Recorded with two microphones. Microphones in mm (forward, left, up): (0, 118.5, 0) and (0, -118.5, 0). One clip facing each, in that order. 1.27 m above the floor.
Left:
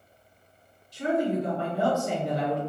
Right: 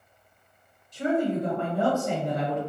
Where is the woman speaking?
55° right (ahead or behind), 1.2 m.